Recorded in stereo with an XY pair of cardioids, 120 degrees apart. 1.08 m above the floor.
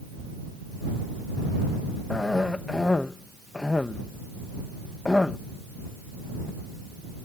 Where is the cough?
15° left.